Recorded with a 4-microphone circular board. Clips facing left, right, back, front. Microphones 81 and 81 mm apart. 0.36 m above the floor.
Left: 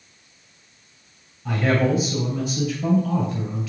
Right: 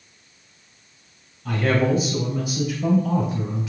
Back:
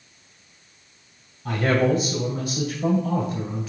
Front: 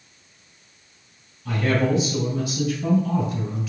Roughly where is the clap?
I don't hear a clap.